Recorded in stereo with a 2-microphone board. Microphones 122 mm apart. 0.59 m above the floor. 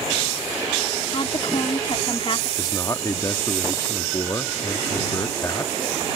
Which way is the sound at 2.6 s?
30° left (ahead or behind).